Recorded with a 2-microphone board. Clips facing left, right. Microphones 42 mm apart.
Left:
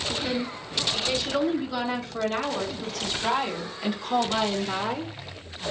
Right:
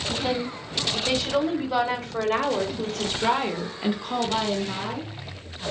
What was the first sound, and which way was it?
A woman speaking, 75° right (ahead or behind).